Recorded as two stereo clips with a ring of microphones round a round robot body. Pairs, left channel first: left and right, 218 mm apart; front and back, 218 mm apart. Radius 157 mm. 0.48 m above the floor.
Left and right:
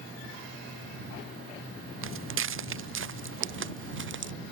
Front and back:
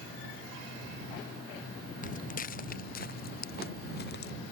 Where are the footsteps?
65° right; by 4.3 s 60° right.